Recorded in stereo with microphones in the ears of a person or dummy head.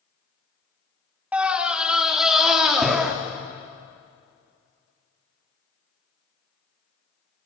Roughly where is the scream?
Centre.